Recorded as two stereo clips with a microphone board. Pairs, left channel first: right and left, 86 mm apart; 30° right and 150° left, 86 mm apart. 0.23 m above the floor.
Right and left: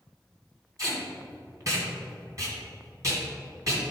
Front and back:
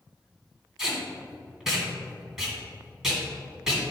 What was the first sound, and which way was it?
Tape being pulled, 65° left.